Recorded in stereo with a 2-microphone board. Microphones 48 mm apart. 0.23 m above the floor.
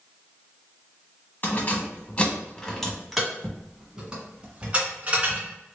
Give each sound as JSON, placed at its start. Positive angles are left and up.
{"t": 1.4, "sound": "keys jangling", "side_deg": 40, "distance_m": 1.3}